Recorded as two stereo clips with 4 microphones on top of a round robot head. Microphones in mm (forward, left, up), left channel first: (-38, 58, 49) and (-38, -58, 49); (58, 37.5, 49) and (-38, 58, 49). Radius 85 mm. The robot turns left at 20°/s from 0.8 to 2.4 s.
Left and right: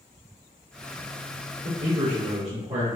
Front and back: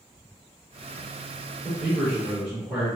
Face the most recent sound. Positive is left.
turn(degrees=-125)